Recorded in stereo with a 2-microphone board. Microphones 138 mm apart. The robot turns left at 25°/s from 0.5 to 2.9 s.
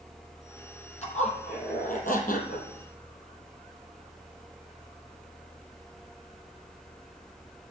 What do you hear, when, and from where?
1.0 s a zipper: 125° left, 3 m; by 2.7 s 85° left, 3 m